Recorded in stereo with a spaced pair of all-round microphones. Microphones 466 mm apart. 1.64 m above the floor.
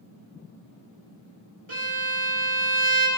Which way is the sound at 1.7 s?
85° right.